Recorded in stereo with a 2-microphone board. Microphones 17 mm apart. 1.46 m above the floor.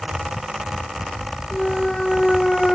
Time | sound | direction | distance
1.5 | a clunk | 45° left (ahead or behind) | ?